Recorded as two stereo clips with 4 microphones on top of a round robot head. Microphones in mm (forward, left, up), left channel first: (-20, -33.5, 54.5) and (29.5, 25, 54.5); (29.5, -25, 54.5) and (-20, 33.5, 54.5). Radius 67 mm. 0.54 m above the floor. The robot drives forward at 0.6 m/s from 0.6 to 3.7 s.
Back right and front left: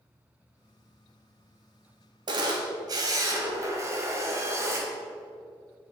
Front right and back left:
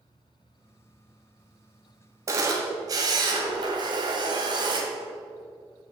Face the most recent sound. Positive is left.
turn(degrees=105)